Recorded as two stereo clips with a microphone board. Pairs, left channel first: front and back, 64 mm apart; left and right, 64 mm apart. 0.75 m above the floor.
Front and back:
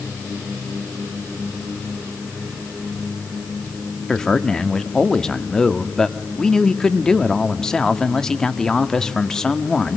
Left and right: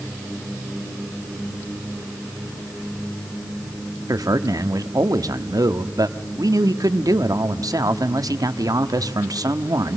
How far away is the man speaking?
About 1.2 m.